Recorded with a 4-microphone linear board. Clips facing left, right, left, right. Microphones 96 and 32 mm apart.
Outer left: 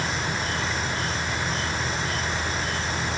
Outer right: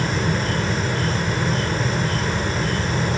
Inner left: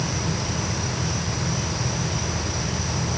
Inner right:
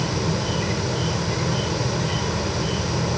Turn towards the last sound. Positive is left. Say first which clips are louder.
# outer right 5 dB, inner right 3 dB
turn(degrees=-45)  # may be behind; listen again after turning